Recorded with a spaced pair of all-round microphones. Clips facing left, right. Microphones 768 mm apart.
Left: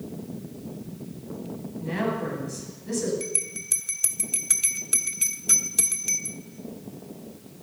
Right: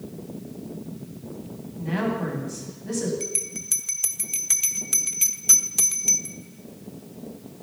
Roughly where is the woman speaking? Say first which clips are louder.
Right 2 dB; right.